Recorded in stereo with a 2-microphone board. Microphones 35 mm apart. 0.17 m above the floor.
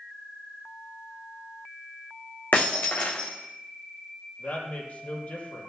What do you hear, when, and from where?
2.5 s breaking glass: 65° left (ahead or behind), 1.9 m
4.4 s a woman speaking: 55° left (ahead or behind), 4 m